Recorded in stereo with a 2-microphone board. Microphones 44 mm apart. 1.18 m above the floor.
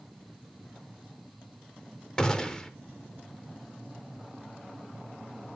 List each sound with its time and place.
2.2 s a gunshot: 20° left (ahead or behind), 0.7 m